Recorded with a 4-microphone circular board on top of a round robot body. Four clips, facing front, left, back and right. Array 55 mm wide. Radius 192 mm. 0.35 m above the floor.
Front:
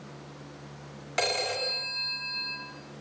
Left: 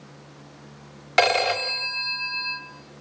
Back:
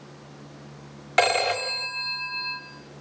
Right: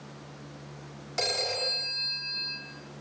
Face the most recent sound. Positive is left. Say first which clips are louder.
# left 11 dB, back 8 dB
turn(degrees=120)